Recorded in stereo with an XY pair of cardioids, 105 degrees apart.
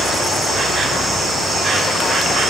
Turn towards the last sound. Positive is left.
turn(degrees=-45)